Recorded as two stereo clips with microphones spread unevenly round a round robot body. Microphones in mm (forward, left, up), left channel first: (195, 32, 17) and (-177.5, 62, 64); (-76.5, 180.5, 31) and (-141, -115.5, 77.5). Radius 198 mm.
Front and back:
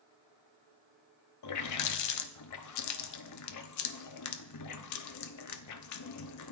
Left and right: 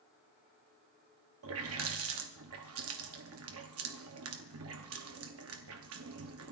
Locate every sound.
1.4 s a running tap: 50° right, 0.8 m